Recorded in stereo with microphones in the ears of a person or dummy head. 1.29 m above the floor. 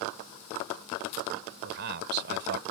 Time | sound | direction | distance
1.6 | a man speaking | 60° right (ahead or behind) | ?